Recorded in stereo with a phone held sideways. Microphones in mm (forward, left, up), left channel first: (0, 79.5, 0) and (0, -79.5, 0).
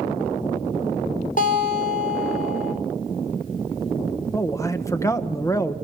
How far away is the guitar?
About 6.5 m.